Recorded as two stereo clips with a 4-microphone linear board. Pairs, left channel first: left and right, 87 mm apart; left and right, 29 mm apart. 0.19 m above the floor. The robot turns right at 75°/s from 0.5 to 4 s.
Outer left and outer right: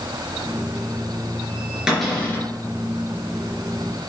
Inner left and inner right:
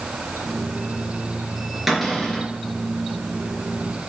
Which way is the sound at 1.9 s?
10° right.